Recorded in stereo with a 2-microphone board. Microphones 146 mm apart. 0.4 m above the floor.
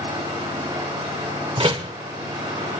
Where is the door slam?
35° right (ahead or behind), 1.0 m.